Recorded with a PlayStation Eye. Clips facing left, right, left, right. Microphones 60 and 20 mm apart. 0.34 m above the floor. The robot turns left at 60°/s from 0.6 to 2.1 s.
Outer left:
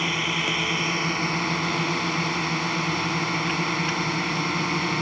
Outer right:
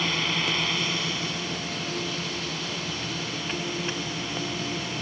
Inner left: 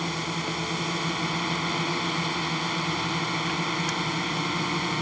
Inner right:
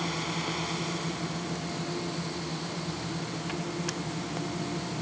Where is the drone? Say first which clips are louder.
Outer left 2 dB, inner left 2 dB; 165° left; by 5.0 s 75° left.